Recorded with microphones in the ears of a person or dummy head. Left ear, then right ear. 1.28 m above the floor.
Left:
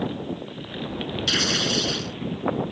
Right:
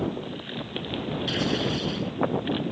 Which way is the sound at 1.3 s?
55° left (ahead or behind).